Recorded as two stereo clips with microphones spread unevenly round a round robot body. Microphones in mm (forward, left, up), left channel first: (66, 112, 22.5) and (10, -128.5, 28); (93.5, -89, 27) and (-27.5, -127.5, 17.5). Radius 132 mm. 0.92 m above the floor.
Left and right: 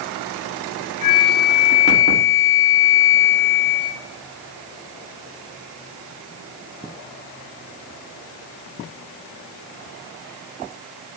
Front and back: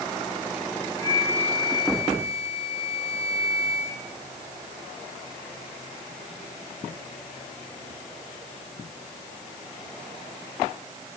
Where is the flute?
100° left, 8 m.